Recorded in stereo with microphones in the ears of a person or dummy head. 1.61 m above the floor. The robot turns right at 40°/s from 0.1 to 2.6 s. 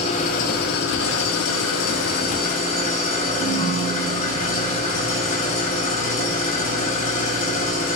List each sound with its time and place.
0.0 s an engine running: 40° left, 1.1 m; by 8.0 s 140° left, 1.1 m
3.4 s a ringtone: 30° left (ahead or behind), 3 m